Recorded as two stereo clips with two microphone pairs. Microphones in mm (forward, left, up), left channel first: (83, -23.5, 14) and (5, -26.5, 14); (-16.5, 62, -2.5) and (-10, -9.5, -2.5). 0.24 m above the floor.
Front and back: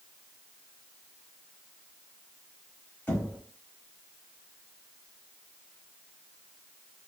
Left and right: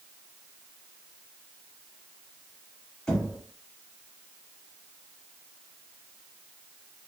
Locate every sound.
3.1 s knocking: 25° left, 1.1 m